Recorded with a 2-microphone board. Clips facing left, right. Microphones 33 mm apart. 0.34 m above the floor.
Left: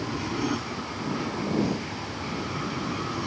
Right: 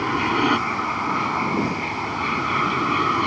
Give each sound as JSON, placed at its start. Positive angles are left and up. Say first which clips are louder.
{"t": 0.0, "sound": "an aircraft", "louder": "right 9 dB", "side_deg": -50}